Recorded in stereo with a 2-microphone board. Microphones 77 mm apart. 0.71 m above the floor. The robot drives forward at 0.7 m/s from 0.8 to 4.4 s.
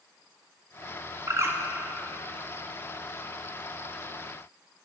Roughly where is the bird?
Right.